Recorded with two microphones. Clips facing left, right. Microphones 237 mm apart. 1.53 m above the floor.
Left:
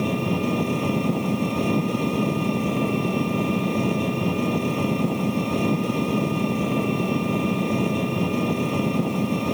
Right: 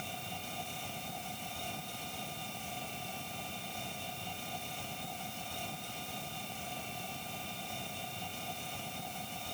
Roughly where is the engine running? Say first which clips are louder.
Left 24 dB; left.